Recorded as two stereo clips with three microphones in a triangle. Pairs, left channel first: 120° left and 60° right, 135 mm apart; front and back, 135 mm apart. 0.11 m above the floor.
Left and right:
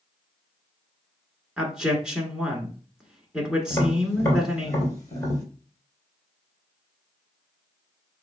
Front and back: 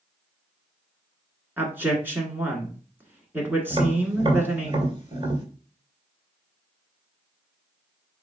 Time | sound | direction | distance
1.6 | a man speaking | 135° right | 1.2 m
3.7 | tapping | 170° left | 1.9 m